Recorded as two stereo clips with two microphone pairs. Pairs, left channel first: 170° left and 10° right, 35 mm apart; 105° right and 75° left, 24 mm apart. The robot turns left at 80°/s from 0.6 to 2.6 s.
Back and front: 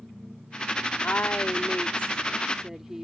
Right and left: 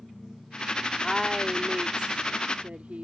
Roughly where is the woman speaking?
Behind.